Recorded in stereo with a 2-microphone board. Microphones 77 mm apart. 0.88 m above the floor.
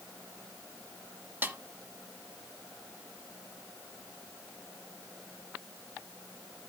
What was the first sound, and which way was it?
A snare drum, 25° right (ahead or behind).